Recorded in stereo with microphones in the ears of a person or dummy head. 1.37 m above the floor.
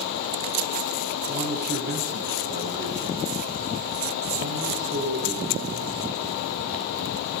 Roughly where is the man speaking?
Right.